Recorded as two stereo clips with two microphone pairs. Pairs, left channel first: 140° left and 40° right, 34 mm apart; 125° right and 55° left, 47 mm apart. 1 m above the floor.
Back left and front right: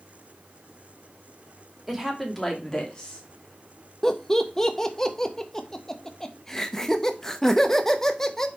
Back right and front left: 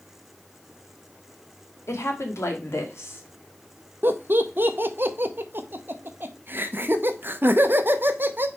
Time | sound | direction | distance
1.9 | a woman speaking | 120° right | 1.8 m
4.0 | laughter | 65° left | 0.8 m